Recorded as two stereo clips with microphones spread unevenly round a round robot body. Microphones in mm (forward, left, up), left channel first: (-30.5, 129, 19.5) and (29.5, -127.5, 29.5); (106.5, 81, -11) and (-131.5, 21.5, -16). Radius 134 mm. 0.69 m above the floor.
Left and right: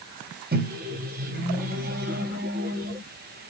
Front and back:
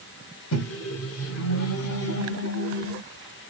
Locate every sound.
0.5 s a microwave: 20° right, 1.0 m